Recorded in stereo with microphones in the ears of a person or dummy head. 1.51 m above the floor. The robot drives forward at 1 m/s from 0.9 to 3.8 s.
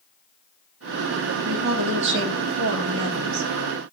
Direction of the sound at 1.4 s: 50° right (ahead or behind).